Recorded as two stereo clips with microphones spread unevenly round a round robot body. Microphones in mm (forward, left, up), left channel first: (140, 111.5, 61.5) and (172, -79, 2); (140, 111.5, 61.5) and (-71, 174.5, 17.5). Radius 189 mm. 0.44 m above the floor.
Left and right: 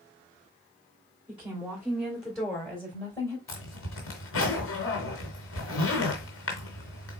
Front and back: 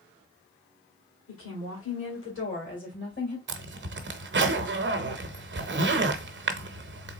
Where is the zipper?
135° left, 0.9 m.